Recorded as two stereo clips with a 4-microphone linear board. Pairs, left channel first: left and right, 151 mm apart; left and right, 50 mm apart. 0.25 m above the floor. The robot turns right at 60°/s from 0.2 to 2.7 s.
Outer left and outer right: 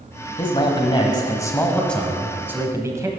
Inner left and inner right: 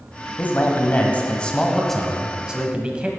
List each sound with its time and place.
0.4 s a man speaking: 75° left, 1.2 m; by 3.1 s 145° right, 1.2 m